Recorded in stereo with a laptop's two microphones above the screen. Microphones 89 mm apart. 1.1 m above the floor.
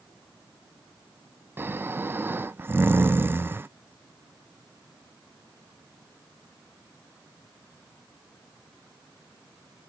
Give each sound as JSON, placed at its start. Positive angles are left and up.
{"t": 1.6, "sound": "snoring", "side_deg": -25}